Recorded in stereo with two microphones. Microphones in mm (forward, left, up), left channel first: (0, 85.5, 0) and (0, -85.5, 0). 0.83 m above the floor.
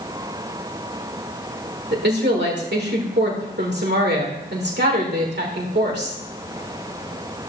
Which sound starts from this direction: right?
A woman speaking, at 1.9 s.